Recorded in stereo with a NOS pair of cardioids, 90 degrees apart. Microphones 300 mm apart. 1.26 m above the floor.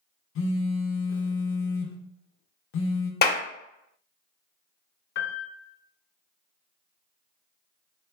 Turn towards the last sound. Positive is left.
turn(degrees=40)